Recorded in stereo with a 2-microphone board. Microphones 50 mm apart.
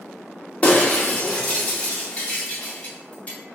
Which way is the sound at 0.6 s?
25° left (ahead or behind).